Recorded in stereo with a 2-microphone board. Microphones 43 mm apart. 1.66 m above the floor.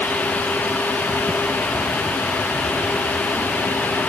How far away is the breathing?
I don't hear breathing.